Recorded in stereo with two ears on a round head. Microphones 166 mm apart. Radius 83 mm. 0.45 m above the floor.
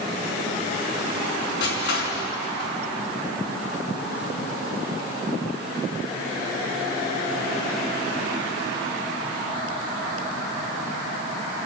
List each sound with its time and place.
1.6 s crushing: 65° left (ahead or behind), 5.5 m